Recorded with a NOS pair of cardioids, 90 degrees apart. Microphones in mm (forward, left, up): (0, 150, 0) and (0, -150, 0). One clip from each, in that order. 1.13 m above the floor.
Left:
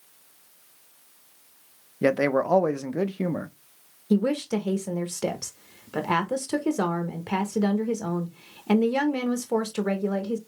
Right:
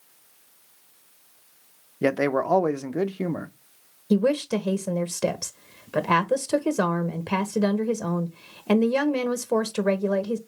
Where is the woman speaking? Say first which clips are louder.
Right 3 dB; 15° right, 0.8 m.